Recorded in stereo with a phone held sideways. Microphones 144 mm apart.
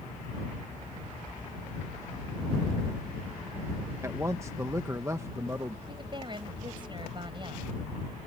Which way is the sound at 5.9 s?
35° right (ahead or behind).